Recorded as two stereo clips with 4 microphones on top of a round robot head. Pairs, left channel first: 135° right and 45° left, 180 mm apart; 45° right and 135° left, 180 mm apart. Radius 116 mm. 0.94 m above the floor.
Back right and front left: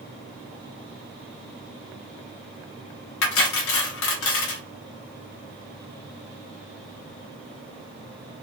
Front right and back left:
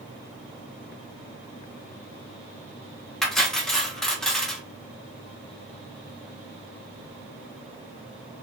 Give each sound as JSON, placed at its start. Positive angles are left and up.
{"t": 3.2, "sound": "cutlery clinking", "azimuth_deg": -135, "distance_m": 0.7}